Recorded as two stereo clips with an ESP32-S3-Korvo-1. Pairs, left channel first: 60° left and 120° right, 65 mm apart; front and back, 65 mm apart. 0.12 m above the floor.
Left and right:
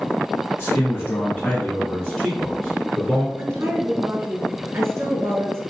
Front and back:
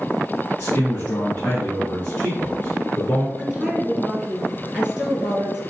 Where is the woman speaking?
105° right, 1.7 m.